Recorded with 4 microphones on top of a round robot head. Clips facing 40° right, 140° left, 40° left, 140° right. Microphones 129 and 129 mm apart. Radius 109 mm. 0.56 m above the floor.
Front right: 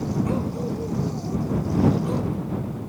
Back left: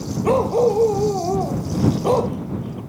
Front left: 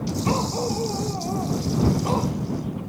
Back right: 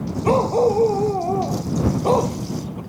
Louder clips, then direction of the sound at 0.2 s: Back left 10 dB, back right 10 dB; 165° left.